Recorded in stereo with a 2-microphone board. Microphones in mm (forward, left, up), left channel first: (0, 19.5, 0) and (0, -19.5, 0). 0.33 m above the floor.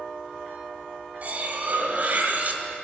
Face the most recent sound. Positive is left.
turn(degrees=-45)  # may be behind; listen again after turning